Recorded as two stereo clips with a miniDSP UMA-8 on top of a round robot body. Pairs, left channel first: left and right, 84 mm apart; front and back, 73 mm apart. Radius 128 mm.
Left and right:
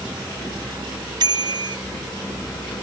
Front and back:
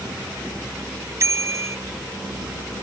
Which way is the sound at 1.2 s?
130° right.